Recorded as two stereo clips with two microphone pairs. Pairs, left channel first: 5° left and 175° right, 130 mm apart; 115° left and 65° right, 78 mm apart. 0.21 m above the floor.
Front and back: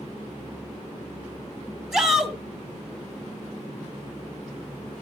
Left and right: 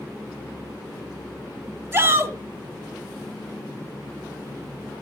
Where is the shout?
90° right, 1.4 m.